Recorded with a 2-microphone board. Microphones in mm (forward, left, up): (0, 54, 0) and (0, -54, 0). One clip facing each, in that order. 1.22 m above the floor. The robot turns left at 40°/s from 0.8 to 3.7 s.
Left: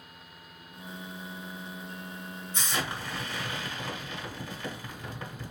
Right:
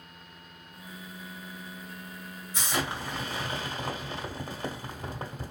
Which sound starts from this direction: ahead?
An explosion, at 2.5 s.